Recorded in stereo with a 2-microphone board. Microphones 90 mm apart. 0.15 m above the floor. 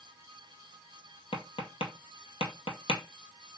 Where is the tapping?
80° left, 0.9 m.